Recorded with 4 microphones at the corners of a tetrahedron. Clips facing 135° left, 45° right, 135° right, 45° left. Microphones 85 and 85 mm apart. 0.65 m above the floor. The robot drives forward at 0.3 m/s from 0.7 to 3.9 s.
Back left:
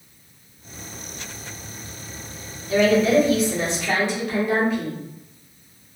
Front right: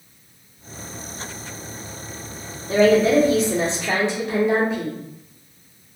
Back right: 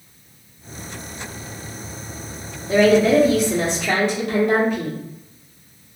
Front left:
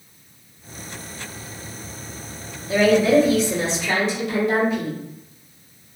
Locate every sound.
2.7 s a woman speaking: 90° right, 1.2 m; by 5.0 s 110° right, 1.3 m